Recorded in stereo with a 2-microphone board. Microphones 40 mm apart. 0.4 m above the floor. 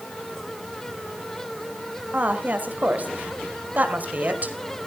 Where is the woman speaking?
45° right (ahead or behind), 2.0 m.